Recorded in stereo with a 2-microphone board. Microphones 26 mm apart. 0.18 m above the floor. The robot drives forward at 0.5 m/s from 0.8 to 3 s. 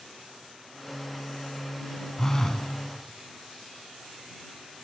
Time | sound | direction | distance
2.2 | a phone buzzing | 25° left (ahead or behind) | 1.0 m